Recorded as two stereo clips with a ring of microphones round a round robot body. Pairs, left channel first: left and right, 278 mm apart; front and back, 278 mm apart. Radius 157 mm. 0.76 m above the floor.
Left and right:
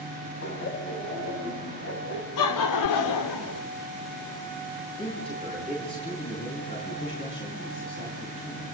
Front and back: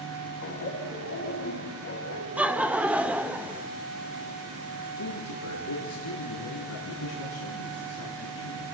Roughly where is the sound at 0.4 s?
Ahead left.